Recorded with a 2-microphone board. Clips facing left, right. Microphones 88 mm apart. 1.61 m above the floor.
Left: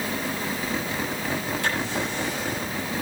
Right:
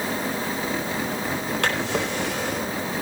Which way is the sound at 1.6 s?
75° right (ahead or behind).